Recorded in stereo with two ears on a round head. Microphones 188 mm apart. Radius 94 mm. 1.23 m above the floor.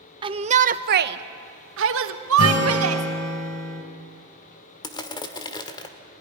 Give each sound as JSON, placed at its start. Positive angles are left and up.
{"t": 0.2, "sound": "a shout", "side_deg": -25, "distance_m": 0.8}
{"t": 2.4, "sound": "a guitar", "side_deg": 75, "distance_m": 3.0}
{"t": 4.8, "sound": "crushing", "side_deg": 20, "distance_m": 1.4}